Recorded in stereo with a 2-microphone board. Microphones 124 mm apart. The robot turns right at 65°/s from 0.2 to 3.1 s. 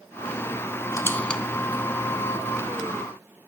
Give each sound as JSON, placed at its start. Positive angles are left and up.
{"t": 0.9, "sound": "a squeak", "side_deg": 25, "distance_m": 0.6}